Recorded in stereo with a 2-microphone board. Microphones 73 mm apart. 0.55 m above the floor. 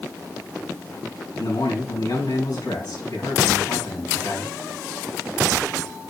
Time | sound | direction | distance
1.4 | a man speaking | 75° left (ahead or behind) | 4.5 m